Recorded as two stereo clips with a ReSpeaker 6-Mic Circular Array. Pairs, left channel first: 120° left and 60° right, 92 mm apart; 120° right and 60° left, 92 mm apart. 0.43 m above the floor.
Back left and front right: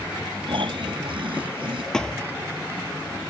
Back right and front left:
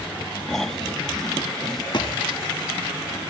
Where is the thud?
155° right.